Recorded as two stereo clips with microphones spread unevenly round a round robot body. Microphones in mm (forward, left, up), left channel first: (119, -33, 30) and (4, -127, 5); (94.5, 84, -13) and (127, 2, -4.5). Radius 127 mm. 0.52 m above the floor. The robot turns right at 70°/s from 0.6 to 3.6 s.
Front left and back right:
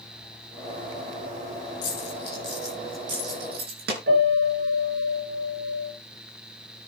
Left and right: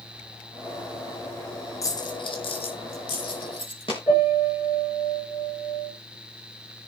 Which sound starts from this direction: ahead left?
A dropped coin, at 1.8 s.